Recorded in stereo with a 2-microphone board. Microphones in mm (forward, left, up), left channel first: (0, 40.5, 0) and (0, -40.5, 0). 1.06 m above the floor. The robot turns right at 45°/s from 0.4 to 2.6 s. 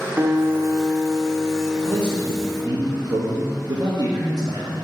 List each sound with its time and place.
0.2 s a guitar: 130° right, 0.9 m; by 2.8 s 30° right, 0.9 m
1.8 s a man speaking: 105° right, 1.0 m; by 4.8 s 65° right, 1.0 m